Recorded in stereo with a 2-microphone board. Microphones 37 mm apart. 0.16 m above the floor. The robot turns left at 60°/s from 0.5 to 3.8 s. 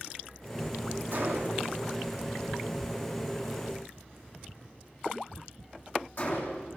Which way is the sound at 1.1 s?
65° right (ahead or behind).